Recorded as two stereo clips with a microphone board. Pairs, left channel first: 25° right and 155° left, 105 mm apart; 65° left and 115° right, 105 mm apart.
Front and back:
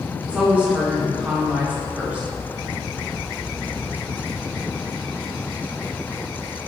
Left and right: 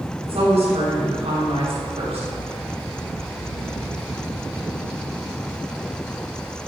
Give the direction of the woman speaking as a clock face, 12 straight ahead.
4 o'clock.